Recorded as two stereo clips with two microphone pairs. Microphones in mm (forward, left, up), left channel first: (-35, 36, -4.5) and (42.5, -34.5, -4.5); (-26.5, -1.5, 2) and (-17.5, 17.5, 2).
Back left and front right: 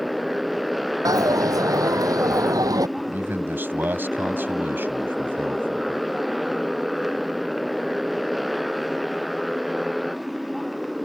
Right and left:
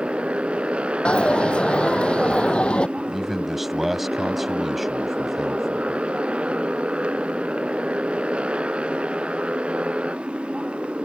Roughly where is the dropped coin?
Right.